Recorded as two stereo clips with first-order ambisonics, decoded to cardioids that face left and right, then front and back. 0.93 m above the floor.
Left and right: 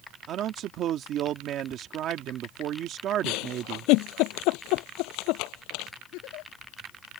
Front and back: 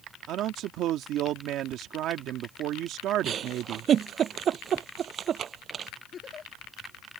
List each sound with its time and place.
0.3 s a man speaking: 135° right
3.2 s a giggle: 120° left
6.1 s a giggle: 65° left